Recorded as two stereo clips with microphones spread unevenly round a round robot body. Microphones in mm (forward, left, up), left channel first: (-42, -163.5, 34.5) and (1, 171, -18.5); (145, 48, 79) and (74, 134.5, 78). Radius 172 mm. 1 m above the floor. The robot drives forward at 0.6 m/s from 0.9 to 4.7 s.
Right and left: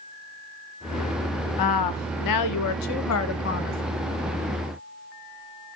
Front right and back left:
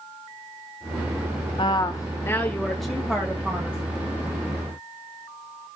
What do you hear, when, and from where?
1.6 s a woman speaking: 80° right, 0.8 m; by 3.8 s 155° right, 1.5 m